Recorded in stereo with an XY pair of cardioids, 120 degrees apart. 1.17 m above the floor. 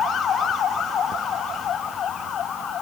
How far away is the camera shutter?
No camera shutter in this recording.